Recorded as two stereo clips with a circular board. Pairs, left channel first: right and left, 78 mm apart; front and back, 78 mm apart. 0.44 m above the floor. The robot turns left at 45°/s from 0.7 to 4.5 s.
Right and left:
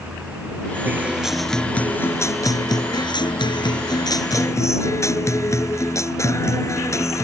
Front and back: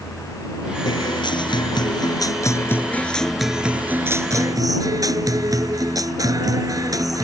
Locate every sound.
0.8 s a guitar: 25° left; by 7.3 s 140° right